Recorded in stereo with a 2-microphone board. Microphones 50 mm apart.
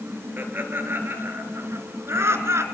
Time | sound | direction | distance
0.4 | laughter | 45° right (ahead or behind) | 4.5 m